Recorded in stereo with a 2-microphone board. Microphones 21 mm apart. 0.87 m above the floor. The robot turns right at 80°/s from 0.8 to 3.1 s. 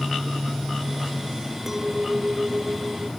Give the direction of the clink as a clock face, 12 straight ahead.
6 o'clock.